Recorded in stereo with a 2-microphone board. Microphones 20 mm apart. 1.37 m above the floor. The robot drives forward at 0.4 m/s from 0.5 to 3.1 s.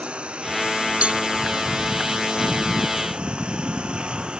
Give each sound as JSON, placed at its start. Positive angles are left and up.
{"t": 0.0, "sound": "a lawn mower", "side_deg": -65}
{"t": 1.0, "sound": "a cowbell", "side_deg": -90}